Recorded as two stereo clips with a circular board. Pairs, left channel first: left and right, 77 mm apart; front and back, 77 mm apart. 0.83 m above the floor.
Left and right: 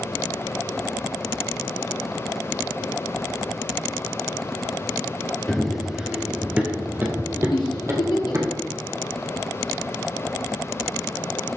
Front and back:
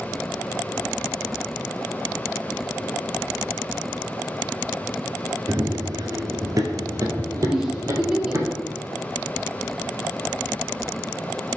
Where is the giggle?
100° left, 1.6 m.